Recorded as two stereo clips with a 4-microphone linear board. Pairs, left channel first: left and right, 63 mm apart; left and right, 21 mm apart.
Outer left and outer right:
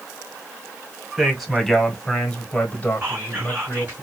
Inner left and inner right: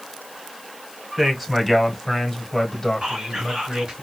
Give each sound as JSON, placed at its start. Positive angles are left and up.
{"t": 1.2, "sound": "a man speaking", "side_deg": -5, "distance_m": 1.6}
{"t": 3.0, "sound": "whispering", "side_deg": -35, "distance_m": 3.0}